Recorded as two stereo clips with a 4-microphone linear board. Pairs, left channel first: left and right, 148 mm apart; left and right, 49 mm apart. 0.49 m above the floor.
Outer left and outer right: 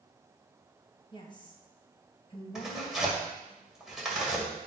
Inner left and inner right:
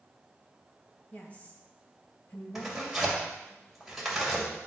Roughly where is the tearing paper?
Centre.